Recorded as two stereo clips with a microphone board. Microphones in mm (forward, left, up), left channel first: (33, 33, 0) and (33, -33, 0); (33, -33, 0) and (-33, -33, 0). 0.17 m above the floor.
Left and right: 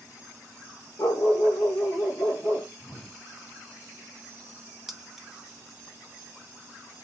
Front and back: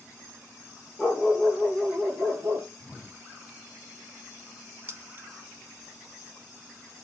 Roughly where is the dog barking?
Left.